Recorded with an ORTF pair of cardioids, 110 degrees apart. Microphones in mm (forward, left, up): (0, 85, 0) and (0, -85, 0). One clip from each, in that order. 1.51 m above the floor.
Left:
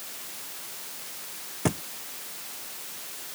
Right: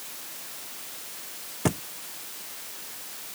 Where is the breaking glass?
I don't hear breaking glass.